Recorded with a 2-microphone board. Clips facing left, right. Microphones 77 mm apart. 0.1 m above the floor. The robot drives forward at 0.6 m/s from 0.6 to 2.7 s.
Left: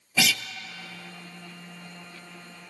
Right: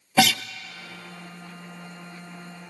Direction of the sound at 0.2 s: 55° right (ahead or behind).